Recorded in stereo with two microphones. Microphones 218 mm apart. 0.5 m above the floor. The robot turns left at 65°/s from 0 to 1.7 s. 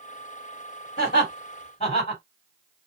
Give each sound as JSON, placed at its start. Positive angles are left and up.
{"t": 1.0, "sound": "laughter", "side_deg": 50, "distance_m": 1.9}